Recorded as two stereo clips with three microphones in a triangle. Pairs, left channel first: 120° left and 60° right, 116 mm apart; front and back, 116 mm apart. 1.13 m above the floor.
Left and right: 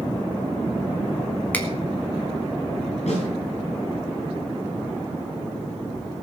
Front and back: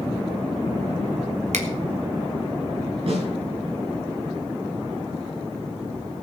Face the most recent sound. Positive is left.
turn(degrees=145)